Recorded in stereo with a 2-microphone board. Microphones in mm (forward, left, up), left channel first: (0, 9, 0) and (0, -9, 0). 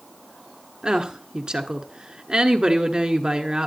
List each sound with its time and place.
0.8 s a woman speaking: 45° right (ahead or behind), 1.4 m